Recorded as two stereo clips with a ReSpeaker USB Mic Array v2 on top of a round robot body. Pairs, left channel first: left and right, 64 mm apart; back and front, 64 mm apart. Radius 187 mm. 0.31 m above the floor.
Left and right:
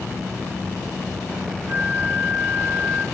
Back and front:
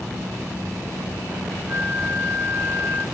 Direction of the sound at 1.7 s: 40° right.